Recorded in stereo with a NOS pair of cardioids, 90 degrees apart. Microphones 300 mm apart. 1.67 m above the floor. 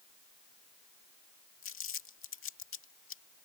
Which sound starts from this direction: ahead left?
Crumpling, at 1.6 s.